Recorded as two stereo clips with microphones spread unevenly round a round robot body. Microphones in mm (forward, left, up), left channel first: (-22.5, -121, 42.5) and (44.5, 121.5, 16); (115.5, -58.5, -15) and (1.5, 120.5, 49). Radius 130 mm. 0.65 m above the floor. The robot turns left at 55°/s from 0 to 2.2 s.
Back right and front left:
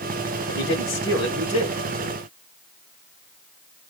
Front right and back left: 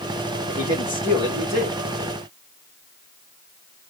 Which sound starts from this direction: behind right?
A man speaking, at 0.5 s.